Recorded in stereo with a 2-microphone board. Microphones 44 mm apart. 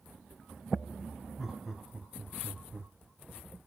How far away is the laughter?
About 1.2 m.